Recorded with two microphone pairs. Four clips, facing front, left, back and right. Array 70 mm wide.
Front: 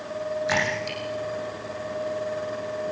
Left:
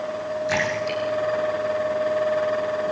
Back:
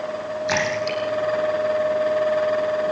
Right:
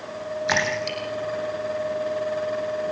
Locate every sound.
0.5 s a splash: 85° right, 7.5 m